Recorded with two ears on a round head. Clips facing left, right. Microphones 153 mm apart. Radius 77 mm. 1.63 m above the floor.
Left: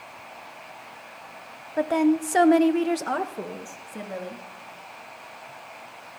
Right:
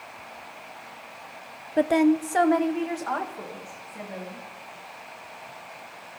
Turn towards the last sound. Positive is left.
turn(degrees=50)  # may be behind; listen again after turning